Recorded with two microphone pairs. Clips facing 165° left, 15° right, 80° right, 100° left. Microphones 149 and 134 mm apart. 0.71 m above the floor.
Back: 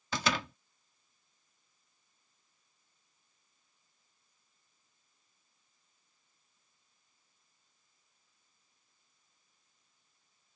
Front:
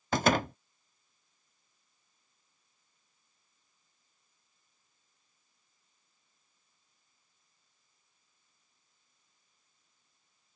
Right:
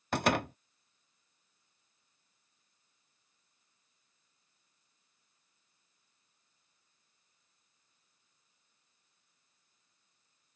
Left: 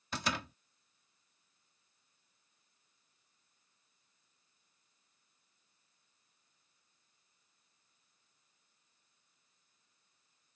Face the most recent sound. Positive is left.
turn(degrees=-55)